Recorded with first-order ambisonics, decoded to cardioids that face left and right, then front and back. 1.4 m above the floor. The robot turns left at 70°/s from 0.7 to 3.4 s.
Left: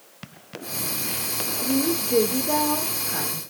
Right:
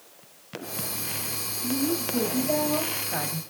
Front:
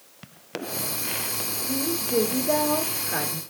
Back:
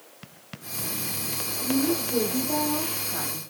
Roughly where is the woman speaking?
Left.